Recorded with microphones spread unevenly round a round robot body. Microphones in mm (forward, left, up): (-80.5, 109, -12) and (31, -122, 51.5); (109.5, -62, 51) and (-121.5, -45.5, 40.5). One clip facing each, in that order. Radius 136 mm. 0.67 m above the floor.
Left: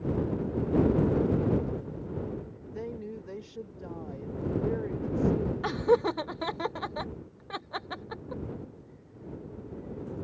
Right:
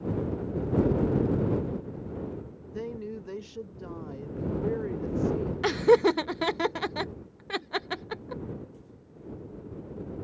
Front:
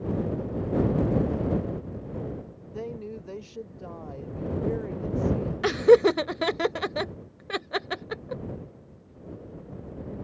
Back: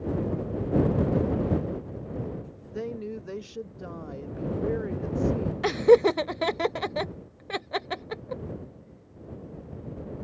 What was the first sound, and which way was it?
A woman speaking, 140° right.